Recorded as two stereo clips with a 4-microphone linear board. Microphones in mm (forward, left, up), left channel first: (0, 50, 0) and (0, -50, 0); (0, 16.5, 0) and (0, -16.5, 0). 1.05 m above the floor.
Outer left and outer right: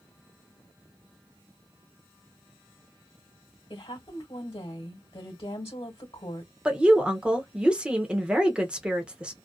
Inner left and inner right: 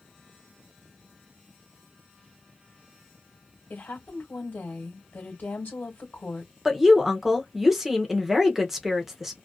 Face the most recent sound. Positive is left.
turn(degrees=-10)  # may be behind; listen again after turning